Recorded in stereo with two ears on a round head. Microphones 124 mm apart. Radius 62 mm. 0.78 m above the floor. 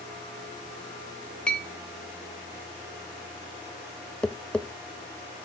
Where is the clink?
10° left (ahead or behind), 1.9 m.